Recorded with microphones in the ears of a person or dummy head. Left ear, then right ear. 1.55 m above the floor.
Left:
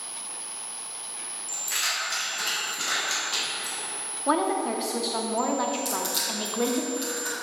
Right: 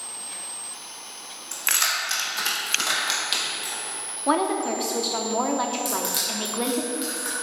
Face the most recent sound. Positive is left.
turn(degrees=-5)  # may be behind; listen again after turning